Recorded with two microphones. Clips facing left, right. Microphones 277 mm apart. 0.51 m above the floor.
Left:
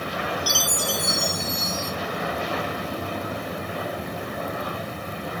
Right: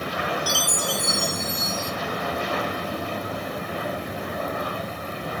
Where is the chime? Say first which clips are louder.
Even; 55° right (ahead or behind), 0.9 m.